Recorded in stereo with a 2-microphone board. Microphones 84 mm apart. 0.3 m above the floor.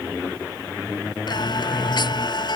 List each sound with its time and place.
1.3 s singing: 60° left (ahead or behind)